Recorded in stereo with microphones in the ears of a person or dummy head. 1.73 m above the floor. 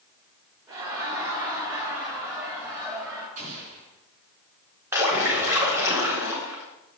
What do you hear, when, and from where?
0.7 s laughter: 25° right (ahead or behind), 5 m; by 3.3 s 15° right (ahead or behind), 3.5 m
3.4 s an explosion: 50° right (ahead or behind), 3.5 m
4.9 s a splash: 5° right (ahead or behind), 4 m